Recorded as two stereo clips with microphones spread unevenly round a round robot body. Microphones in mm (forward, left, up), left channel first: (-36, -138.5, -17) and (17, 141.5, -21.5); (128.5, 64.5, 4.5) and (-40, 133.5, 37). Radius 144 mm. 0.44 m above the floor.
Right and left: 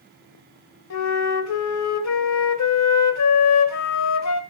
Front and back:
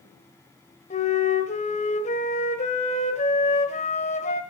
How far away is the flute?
About 1.3 m.